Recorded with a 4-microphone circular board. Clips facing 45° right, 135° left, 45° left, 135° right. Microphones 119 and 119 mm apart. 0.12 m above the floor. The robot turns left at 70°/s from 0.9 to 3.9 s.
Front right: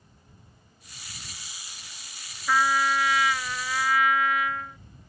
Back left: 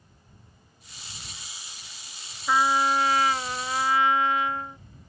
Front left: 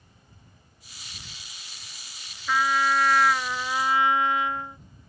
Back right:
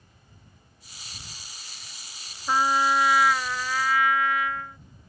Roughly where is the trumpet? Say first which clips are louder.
Back left 1 dB, back right 1 dB; behind.